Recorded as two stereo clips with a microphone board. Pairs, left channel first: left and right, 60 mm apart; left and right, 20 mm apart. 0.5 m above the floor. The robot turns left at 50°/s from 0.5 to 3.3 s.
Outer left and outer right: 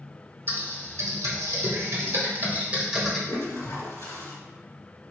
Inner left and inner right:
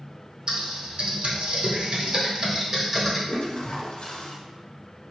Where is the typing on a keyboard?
45° right (ahead or behind), 1.1 m; by 3.2 s centre (ahead or behind), 1.1 m.